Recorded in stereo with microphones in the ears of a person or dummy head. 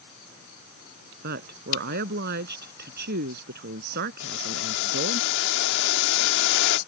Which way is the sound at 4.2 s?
65° left (ahead or behind).